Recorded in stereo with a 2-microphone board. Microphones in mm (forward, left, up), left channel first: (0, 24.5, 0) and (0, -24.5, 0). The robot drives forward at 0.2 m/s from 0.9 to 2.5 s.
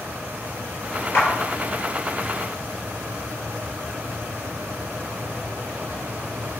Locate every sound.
1.1 s a clap: 50° left (ahead or behind), 3.5 m